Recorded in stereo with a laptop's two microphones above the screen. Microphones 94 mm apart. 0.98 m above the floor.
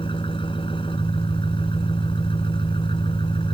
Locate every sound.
0.0 s an engine running: 65° left (ahead or behind)